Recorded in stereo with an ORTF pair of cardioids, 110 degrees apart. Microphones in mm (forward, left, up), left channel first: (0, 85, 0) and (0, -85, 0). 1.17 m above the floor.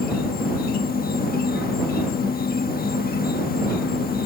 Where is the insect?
65° left.